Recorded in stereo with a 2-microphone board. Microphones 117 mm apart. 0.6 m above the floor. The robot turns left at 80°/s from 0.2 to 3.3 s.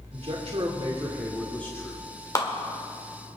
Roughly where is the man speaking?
Right.